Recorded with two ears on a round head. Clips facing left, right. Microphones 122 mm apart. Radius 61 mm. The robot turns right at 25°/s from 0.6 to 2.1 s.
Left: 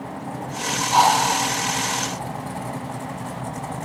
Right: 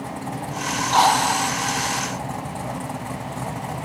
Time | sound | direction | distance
0.9 | a drill | 15° left (ahead or behind) | 7.5 m